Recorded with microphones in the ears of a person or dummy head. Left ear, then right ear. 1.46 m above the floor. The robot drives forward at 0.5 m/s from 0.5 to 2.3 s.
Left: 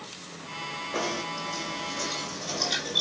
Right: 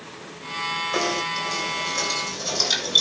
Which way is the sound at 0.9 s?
80° right.